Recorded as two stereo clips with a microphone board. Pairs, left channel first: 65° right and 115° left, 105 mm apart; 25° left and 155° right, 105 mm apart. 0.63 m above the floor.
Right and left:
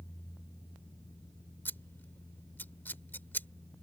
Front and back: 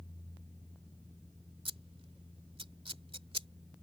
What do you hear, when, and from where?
1.6 s scissors: 135° right